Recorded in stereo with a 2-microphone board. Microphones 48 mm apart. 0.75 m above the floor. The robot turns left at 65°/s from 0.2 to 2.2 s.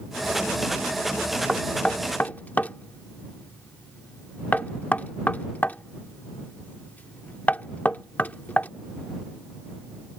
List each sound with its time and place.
1.5 s knocking: 5° right (ahead or behind); by 8.7 s 40° left (ahead or behind)